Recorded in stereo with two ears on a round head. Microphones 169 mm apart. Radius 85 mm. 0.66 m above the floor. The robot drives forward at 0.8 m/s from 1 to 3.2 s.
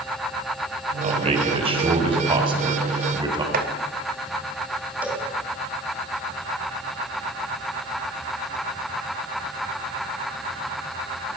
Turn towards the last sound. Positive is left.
turn(degrees=-10)  # may be behind; listen again after turning